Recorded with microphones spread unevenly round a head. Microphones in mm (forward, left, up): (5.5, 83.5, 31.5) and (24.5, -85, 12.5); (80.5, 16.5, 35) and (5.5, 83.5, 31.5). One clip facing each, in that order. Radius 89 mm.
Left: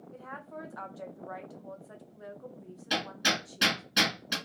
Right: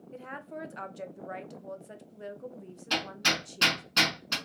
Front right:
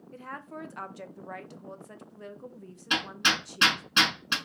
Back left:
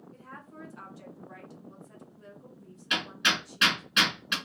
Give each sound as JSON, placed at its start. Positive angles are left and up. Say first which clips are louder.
{"t": 0.1, "sound": "a woman speaking", "louder": "right 3 dB, front right 9 dB", "azimuth_deg": -20, "distance_m": 0.8}
{"t": 2.9, "sound": "hammering", "louder": "left 1 dB, front right 1 dB", "azimuth_deg": 15, "distance_m": 2.5}